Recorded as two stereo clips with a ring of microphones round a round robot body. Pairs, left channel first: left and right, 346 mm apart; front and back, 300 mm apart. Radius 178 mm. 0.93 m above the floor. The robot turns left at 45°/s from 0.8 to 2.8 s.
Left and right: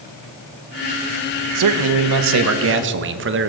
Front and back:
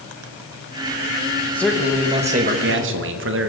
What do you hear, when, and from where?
1.6 s a man speaking: 85° right, 1.0 m; by 3.5 s 140° right, 1.0 m